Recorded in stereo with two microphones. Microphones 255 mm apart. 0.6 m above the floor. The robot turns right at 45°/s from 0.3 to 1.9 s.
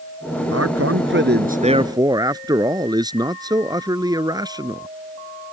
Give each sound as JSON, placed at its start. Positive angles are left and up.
{"t": 0.5, "sound": "a man speaking", "azimuth_deg": -80}